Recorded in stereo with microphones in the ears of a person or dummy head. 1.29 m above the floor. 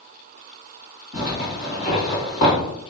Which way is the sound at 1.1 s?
40° left (ahead or behind).